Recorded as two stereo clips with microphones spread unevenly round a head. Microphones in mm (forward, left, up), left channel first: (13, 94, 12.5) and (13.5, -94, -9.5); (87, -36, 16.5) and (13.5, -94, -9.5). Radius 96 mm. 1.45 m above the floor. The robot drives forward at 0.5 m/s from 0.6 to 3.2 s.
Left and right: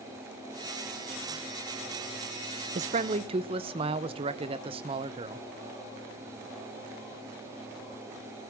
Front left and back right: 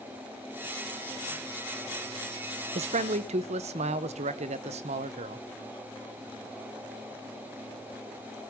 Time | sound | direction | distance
2.8 | a man speaking | 145° right | 0.6 m